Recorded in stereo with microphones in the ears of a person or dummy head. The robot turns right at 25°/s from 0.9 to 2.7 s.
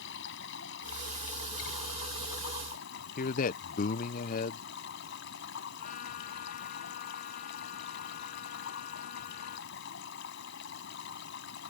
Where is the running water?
70° left; by 11.7 s 115° left.